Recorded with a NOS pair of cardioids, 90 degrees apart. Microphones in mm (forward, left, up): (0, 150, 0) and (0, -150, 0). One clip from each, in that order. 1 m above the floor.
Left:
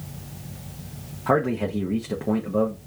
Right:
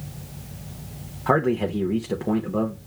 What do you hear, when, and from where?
1.3 s a man speaking: 15° right, 0.8 m